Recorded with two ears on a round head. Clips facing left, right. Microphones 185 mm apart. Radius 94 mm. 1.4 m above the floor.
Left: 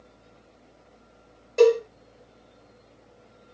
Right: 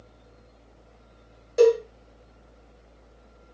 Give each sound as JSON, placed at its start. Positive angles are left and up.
{"t": 1.6, "sound": "a cowbell", "side_deg": -10, "distance_m": 2.0}